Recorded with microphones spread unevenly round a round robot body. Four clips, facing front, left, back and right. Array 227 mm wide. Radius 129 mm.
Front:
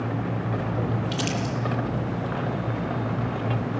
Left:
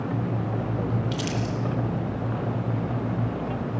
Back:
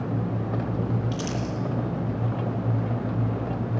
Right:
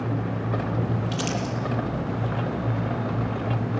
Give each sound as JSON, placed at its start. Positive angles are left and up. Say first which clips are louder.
{"t": 1.1, "sound": "crumpling", "louder": "right 1 dB, front 2 dB", "azimuth_deg": 15, "distance_m": 9.5}